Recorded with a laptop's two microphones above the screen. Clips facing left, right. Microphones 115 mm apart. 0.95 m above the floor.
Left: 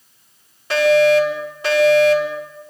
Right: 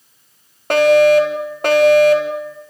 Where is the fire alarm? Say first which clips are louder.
Right 3 dB; 55° right (ahead or behind), 4 m.